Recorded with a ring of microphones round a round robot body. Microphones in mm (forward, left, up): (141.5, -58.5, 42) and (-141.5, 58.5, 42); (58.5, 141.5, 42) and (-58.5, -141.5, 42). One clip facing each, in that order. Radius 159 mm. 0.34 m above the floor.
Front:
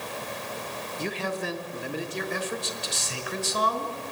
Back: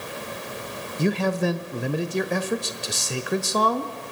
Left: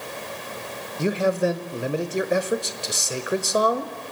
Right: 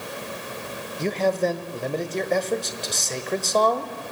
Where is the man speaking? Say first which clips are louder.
Back 9 dB, left 1 dB; 145° left, 1.2 m.